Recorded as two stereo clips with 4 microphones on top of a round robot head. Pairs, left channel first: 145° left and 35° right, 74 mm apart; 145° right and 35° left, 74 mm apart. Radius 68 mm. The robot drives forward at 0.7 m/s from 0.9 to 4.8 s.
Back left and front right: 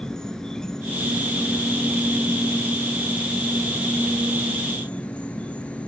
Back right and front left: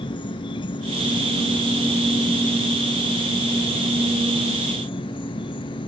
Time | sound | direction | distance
0.0 | an insect | 130° right | ?